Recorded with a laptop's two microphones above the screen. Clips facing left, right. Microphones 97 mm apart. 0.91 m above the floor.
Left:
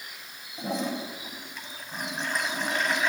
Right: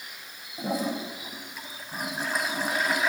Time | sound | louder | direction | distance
0.6 | a toilet flushing | right 1 dB | 5° right (ahead or behind) | 5.5 m